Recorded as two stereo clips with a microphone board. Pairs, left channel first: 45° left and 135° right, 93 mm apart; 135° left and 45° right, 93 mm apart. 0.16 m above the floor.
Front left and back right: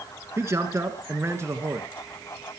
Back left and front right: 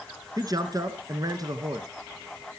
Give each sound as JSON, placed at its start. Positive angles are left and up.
{"t": 0.4, "sound": "a man speaking", "azimuth_deg": -80, "distance_m": 2.0}